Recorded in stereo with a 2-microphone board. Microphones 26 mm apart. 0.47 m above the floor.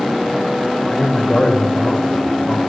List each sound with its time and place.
0.9 s a man speaking: 40° left (ahead or behind), 2 m